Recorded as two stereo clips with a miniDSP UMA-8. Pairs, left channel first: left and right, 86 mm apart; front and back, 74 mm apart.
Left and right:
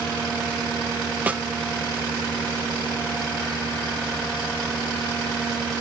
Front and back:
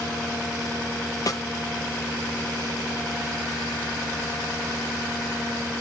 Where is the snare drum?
20° right, 0.6 m.